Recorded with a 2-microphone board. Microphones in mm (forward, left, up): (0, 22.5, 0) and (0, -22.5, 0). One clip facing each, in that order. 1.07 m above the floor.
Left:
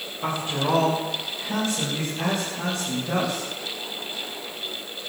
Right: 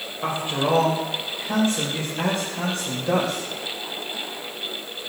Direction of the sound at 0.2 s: 15° right (ahead or behind).